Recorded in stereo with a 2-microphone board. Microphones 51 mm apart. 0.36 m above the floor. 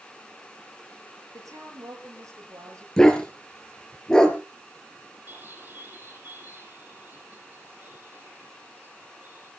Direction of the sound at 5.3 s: 35° right (ahead or behind).